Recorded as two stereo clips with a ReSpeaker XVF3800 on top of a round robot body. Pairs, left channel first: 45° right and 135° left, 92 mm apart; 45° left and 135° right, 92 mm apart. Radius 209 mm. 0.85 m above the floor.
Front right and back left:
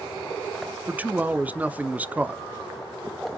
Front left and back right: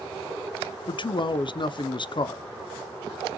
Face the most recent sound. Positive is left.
turn(degrees=65)